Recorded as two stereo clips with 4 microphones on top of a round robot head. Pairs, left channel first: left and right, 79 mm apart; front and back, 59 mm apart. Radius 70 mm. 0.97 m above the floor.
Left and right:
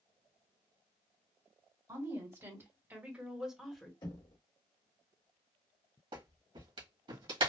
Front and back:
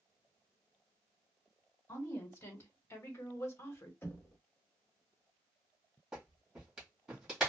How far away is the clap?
About 1.5 m.